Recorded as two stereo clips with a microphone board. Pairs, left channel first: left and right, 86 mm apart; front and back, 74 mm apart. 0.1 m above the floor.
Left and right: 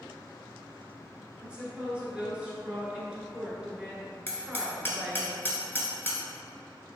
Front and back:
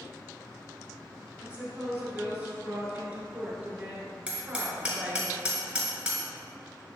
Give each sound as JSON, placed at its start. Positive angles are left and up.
{"t": 1.4, "sound": "a woman speaking", "azimuth_deg": -150, "distance_m": 1.2}
{"t": 4.3, "sound": "hammering", "azimuth_deg": 115, "distance_m": 1.3}